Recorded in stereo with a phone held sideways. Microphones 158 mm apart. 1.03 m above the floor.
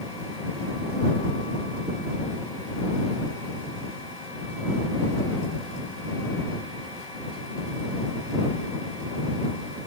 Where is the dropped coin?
I don't hear a dropped coin.